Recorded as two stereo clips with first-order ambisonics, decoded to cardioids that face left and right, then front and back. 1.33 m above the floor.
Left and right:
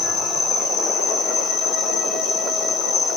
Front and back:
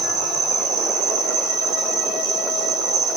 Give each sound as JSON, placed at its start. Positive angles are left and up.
{"t": 0.0, "sound": "an insect", "azimuth_deg": 150, "distance_m": 1.9}